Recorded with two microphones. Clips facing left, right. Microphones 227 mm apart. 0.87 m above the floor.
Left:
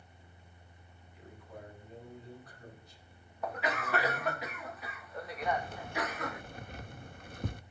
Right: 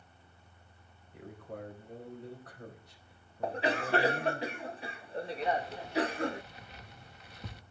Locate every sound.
1.1 s a man speaking: 65° right (ahead or behind), 5 m
3.4 s a cough: 30° right (ahead or behind), 0.5 m
5.4 s keys jangling: 50° left (ahead or behind), 0.7 m